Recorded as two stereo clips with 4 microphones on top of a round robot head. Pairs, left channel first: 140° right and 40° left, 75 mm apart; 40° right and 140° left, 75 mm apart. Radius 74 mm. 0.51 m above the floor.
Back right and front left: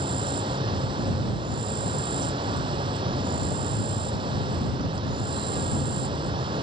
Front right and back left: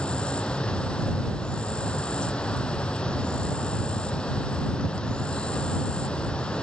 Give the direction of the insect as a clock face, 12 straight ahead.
11 o'clock.